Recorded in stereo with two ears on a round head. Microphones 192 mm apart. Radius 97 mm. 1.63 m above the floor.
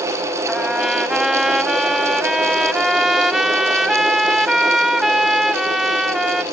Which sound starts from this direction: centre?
A trumpet, at 0.5 s.